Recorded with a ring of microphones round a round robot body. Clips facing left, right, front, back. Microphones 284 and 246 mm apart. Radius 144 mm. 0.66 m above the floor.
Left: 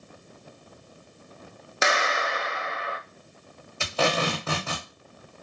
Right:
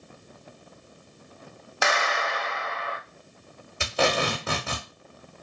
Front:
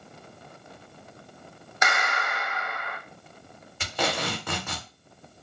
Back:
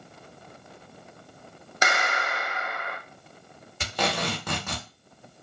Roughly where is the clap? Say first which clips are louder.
Left 1 dB, back 2 dB; behind left.